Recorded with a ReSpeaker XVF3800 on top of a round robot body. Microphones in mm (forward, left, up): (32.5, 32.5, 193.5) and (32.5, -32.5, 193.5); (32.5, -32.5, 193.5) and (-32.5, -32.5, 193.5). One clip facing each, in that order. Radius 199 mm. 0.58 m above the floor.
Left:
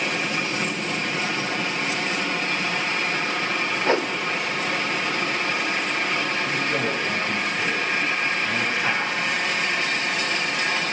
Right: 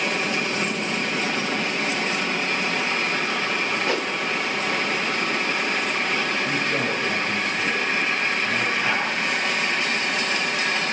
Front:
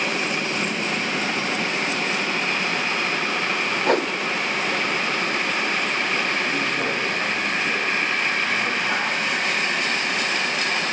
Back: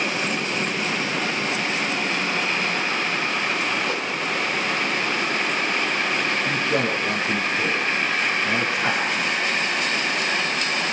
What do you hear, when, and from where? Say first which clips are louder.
3.9 s a whoosh: left 3 dB, front 6 dB; 30° left, 1.6 m
6.5 s a man speaking: even, back 1 dB; 165° left, 10 m